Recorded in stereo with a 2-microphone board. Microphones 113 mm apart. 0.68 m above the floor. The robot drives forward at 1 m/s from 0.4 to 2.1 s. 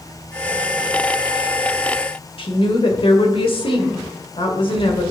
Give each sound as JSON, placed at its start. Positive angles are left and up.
{"t": 2.4, "sound": "a woman speaking", "side_deg": 55, "distance_m": 2.0}